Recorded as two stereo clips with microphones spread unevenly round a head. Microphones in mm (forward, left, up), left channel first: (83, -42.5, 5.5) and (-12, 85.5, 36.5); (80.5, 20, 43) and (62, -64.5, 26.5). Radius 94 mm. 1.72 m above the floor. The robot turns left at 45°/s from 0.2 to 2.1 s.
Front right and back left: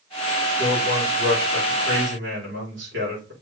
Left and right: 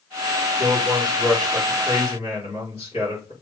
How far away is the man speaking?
About 4.5 m.